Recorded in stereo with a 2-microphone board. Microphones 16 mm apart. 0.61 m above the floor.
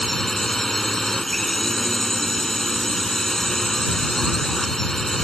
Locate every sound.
0.0 s a drone: 35° left (ahead or behind)